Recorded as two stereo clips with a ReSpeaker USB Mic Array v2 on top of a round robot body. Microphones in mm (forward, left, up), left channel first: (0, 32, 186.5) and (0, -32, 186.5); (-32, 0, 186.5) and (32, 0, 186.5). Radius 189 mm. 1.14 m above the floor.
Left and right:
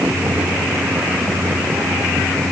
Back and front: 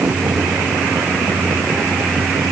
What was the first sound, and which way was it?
Only background noise.